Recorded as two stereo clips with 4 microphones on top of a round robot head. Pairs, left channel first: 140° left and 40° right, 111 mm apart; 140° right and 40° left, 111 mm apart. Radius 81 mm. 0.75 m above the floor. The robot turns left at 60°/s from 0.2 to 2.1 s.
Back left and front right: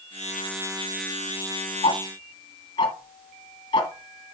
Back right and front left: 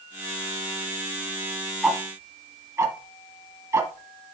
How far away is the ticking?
About 1.9 m.